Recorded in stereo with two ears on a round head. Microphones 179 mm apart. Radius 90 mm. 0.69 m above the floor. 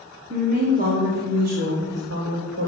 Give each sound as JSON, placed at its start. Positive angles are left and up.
{"t": 0.3, "sound": "a woman speaking", "side_deg": -40, "distance_m": 2.5}